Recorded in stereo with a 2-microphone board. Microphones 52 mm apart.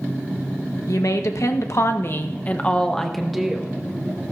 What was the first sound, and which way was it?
A woman speaking, 80° left.